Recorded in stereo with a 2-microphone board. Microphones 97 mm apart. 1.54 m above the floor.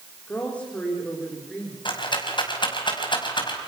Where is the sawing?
I don't hear sawing.